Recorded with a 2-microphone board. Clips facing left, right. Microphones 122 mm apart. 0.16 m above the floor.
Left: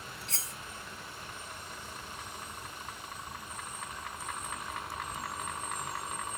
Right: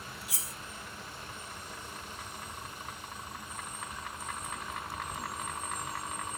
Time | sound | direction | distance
0.3 | cutlery clinking | 10° right (ahead or behind) | 0.8 m